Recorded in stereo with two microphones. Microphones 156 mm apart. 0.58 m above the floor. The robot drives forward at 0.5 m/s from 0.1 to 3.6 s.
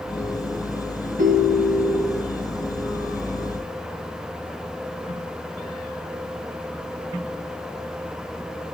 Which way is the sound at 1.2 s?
65° right (ahead or behind).